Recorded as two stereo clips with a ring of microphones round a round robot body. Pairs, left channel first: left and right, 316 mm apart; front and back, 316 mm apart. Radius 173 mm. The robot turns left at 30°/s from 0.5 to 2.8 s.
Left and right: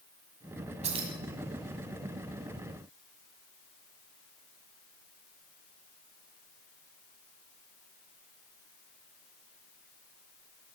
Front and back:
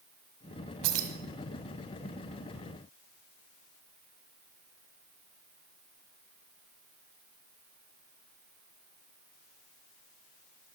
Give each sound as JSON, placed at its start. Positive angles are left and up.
{"t": 0.8, "sound": "keys jangling", "azimuth_deg": -160, "distance_m": 1.7}